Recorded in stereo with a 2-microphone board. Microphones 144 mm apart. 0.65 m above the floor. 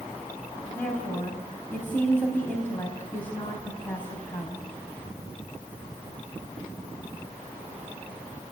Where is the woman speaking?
15° left (ahead or behind), 4 m.